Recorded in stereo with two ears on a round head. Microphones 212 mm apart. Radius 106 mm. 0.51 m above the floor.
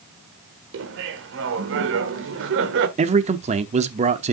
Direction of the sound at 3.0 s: 30° right (ahead or behind).